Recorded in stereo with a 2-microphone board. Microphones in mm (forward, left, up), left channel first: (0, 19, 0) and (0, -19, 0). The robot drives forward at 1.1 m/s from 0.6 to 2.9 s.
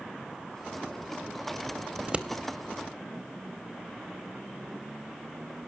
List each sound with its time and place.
2.0 s scissors: 30° right (ahead or behind), 0.9 m; by 2.3 s 25° right (ahead or behind), 1.1 m